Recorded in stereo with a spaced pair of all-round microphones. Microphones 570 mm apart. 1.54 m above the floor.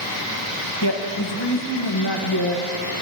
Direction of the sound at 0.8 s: 45° left (ahead or behind).